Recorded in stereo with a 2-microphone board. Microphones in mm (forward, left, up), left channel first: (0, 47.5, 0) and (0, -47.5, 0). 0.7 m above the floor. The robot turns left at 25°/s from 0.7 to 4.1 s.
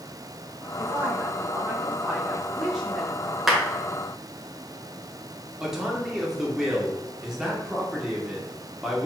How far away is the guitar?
I don't hear a guitar.